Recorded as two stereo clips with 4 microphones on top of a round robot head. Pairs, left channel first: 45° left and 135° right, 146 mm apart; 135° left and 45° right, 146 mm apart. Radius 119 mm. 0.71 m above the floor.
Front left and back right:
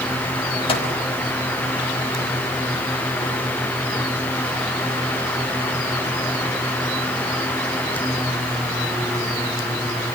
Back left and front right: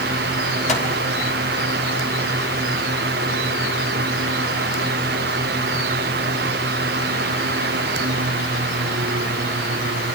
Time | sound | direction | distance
0.7 | a microwave | 95° left | 5 m